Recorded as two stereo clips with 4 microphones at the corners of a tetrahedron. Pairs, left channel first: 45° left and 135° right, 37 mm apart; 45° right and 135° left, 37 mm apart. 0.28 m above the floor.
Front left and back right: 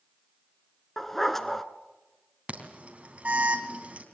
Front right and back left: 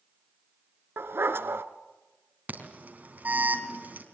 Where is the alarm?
175° left, 3 m.